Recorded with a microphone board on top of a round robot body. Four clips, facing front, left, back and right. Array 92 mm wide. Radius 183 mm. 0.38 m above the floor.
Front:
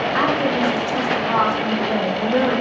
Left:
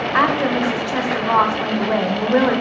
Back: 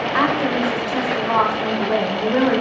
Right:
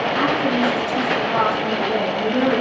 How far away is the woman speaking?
About 2.5 m.